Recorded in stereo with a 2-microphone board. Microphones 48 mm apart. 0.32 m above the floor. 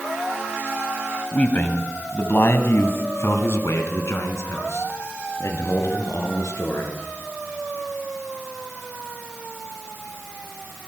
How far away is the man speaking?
About 2 m.